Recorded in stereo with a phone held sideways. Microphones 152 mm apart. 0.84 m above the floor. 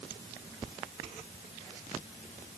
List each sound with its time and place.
Only background noise.